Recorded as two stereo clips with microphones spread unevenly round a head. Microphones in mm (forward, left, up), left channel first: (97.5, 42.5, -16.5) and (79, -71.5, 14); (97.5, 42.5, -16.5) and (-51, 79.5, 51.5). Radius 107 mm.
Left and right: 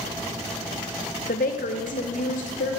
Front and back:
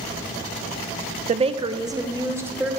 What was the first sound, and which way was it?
A woman speaking, 125° left.